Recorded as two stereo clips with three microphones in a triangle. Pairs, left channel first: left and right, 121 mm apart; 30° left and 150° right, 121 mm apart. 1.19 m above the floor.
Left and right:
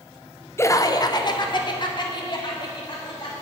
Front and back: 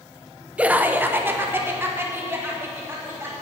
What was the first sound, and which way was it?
Laughter, 140° left.